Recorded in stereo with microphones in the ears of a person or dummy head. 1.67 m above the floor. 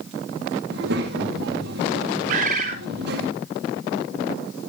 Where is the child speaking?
70° right (ahead or behind), 2 m.